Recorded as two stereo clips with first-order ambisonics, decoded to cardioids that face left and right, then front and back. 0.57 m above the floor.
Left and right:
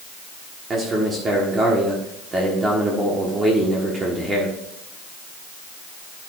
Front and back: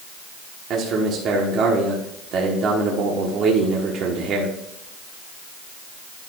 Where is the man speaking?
150° right, 1.5 m.